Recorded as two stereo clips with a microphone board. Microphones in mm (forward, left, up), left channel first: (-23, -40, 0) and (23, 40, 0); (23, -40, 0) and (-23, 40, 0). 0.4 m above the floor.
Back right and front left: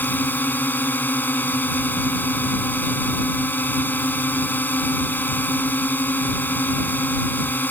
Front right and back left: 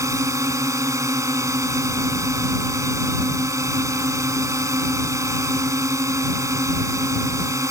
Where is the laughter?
I don't hear laughter.